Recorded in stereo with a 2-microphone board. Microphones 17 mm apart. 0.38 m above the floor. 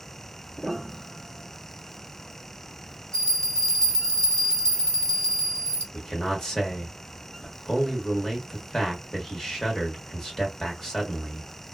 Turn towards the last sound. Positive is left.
turn(degrees=35)  # may be behind; listen again after turning